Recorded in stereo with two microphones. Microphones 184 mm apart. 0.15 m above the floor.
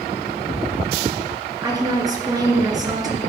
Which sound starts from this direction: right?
A woman speaking, at 1.6 s.